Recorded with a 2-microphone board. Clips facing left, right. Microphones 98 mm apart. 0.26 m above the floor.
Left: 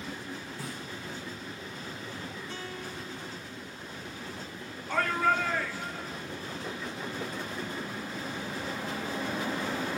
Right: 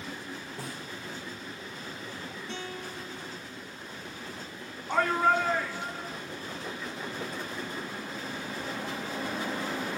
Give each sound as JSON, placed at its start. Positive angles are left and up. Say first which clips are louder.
{"t": 0.6, "sound": "a snare drum", "louder": "even", "side_deg": -70, "distance_m": 3.5}
{"t": 2.5, "sound": "a guitar", "louder": "right 1 dB", "side_deg": -70, "distance_m": 4.5}
{"t": 4.9, "sound": "a shout", "louder": "right 2 dB", "side_deg": -20, "distance_m": 2.5}